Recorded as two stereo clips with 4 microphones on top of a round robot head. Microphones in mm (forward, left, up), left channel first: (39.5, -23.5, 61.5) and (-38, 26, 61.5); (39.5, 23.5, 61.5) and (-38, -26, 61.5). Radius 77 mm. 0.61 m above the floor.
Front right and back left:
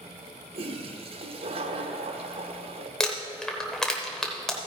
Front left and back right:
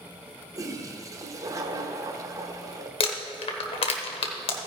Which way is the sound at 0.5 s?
155° left.